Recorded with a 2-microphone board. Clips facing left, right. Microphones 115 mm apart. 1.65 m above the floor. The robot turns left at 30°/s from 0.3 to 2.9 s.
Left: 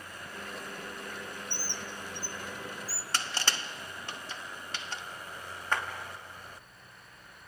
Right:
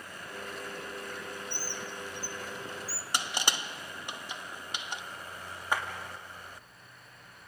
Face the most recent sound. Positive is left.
turn(degrees=-10)  # may be behind; listen again after turning